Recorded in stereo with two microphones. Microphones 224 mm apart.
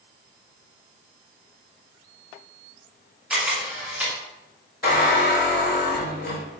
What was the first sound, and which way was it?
A camera shutter, 5° right (ahead or behind).